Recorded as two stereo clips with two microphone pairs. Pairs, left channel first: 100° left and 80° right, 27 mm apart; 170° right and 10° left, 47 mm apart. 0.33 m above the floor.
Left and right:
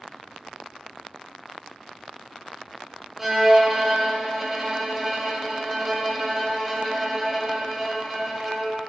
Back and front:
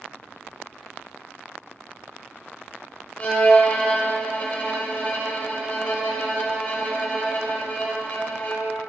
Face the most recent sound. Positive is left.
turn(degrees=-160)